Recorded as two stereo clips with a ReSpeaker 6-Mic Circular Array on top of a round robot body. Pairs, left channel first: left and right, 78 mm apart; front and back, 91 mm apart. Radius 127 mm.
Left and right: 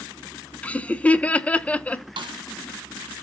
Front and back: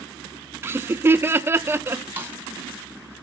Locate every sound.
0.6 s laughter: 145° left, 0.8 m
2.2 s a snare drum: 110° right, 1.8 m